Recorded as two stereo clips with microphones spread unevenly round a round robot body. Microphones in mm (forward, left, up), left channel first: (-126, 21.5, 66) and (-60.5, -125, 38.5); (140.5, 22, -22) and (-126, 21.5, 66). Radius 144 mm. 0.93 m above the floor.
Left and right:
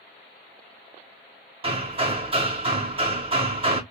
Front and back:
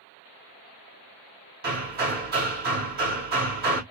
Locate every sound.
1.6 s hammering: 120° right, 1.8 m